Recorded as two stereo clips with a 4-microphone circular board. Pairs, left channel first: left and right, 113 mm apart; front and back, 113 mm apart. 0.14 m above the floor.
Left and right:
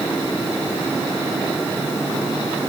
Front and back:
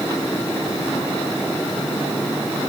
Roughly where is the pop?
No pop in this recording.